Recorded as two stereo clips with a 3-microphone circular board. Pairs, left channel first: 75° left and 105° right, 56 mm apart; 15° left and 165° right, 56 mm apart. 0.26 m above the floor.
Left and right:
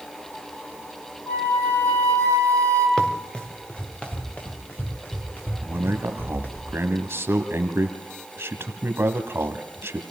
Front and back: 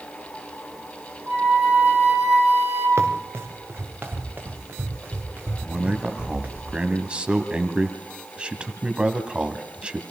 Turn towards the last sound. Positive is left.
turn(degrees=-105)